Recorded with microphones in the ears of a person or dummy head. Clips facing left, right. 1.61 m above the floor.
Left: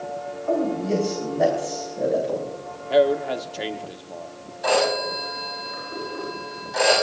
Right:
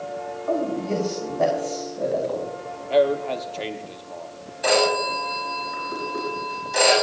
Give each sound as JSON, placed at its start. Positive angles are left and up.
{"t": 0.5, "sound": "a man speaking", "side_deg": 5, "distance_m": 5.0}
{"t": 2.9, "sound": "a man speaking", "side_deg": 10, "distance_m": 1.1}
{"t": 4.6, "sound": "a phone ringing", "side_deg": -35, "distance_m": 7.5}